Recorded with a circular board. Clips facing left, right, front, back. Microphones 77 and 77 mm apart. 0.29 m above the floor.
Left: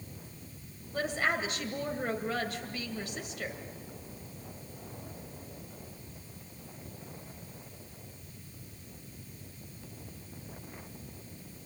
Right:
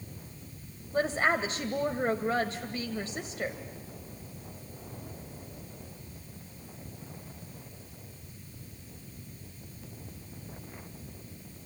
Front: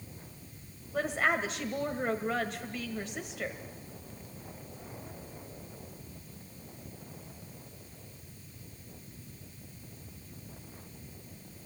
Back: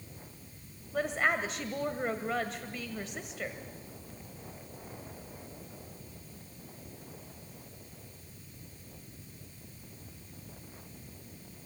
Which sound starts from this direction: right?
A woman speaking, at 0.9 s.